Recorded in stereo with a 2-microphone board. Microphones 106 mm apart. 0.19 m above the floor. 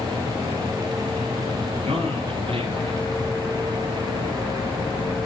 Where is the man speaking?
65° right (ahead or behind), 3.5 m; by 3.0 s 50° right (ahead or behind), 2.5 m.